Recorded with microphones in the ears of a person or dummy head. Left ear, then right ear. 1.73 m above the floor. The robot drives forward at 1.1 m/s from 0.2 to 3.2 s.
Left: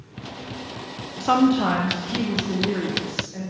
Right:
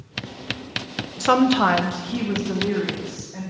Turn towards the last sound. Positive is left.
turn(degrees=-10)  # may be behind; listen again after turning